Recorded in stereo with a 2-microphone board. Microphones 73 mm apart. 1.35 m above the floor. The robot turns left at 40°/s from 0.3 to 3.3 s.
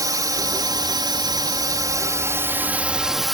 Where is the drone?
60° right; by 3.4 s straight behind.